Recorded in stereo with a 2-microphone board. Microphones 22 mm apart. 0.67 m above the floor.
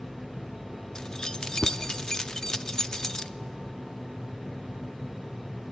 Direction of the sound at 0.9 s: 30° left (ahead or behind).